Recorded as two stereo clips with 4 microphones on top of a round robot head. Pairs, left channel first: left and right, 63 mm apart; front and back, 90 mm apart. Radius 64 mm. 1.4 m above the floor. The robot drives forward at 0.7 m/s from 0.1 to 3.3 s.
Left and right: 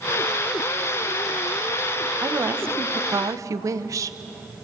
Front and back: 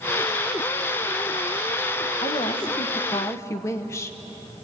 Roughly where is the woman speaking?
Ahead right.